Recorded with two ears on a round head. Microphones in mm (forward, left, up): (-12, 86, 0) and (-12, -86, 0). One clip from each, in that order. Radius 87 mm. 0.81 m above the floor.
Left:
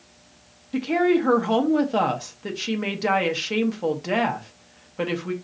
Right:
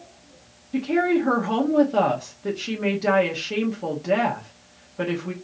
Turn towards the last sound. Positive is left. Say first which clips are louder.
# left 1 dB
turn(degrees=30)  # may be behind; listen again after turning